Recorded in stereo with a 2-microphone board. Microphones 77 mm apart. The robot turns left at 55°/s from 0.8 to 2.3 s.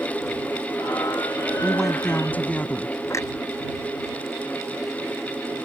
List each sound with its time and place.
1.6 s a woman speaking: 165° right; by 3.0 s 160° left
3.1 s a clunk: 40° left (ahead or behind)